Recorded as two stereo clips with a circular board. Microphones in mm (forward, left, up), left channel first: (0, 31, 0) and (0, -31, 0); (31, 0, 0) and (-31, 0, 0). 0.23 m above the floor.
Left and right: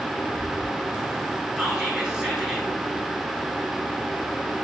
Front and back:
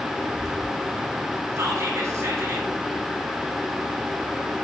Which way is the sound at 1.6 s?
165° right.